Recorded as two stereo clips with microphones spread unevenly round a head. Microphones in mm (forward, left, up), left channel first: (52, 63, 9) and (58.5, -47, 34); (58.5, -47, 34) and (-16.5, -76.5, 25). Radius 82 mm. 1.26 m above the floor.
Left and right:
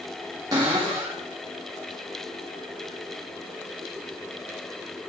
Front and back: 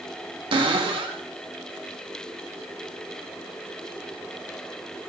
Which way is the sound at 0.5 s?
150° right.